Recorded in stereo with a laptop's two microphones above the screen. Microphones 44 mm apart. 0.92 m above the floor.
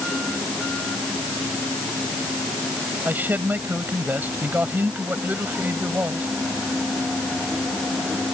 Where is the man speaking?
45° right (ahead or behind).